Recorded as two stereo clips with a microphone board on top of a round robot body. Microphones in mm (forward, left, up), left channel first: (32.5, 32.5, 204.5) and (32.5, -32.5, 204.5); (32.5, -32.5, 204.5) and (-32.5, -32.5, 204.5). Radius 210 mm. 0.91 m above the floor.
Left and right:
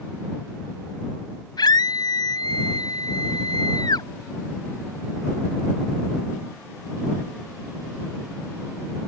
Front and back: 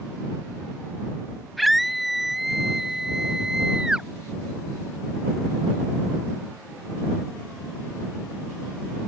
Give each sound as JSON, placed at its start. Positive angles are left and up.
{"t": 1.6, "sound": "a scream", "azimuth_deg": 90}